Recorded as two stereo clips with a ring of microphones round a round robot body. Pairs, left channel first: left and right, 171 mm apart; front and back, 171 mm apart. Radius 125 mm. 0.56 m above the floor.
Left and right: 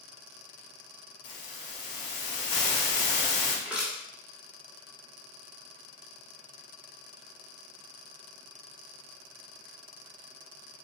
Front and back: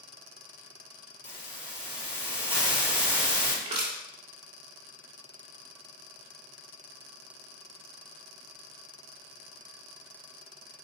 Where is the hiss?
75° left, 2 m.